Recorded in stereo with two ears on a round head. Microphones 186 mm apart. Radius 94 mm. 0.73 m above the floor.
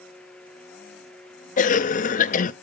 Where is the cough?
40° left (ahead or behind), 0.6 m.